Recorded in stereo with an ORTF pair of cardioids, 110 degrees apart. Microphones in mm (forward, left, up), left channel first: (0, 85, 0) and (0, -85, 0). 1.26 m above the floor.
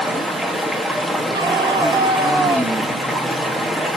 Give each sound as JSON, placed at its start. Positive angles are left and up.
{"t": 0.0, "sound": "running water", "azimuth_deg": 0, "distance_m": 1.7}
{"t": 1.3, "sound": "a scream", "azimuth_deg": -25, "distance_m": 3.0}